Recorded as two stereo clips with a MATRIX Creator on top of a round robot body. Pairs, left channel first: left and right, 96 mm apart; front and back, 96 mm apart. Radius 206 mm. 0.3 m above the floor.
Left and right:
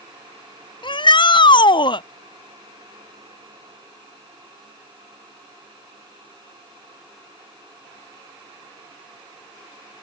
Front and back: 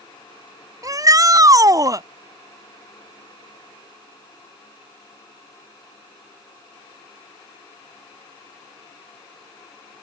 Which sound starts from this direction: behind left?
A shout, at 0.8 s.